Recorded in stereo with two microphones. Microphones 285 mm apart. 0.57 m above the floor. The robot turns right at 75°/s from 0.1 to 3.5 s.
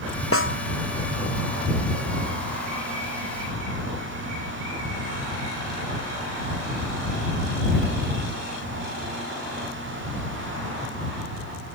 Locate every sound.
0.3 s a snare drum: 50° left (ahead or behind); by 0.6 s 30° left (ahead or behind)